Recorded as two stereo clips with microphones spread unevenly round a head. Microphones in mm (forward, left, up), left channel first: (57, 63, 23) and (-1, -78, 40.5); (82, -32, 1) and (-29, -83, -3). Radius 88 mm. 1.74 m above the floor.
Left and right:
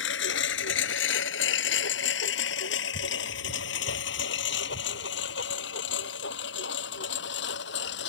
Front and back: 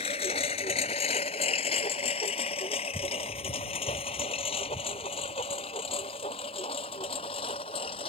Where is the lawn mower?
75° left; by 8.1 s 85° left.